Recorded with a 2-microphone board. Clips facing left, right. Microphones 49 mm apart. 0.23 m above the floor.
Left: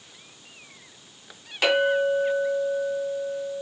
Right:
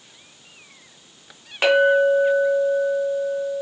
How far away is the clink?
About 1.3 m.